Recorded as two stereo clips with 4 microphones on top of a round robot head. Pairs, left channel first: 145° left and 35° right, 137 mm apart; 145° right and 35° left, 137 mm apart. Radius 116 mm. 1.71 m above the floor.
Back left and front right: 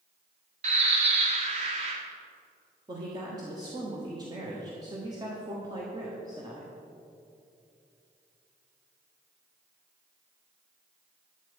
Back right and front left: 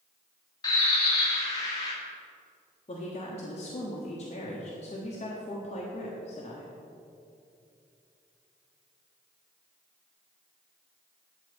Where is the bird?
80° right, 1.3 m.